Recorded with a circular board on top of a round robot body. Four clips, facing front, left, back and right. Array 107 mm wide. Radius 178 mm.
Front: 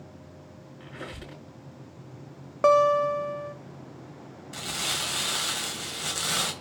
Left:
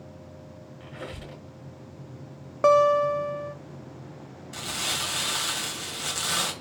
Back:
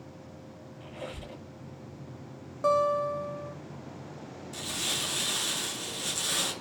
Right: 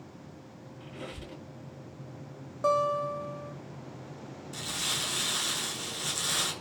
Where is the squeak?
25° left, 4.5 m.